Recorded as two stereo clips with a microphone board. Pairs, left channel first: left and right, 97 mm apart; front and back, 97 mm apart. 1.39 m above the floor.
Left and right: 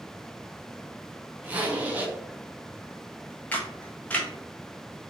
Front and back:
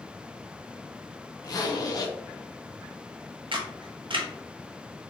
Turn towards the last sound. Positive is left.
turn(degrees=165)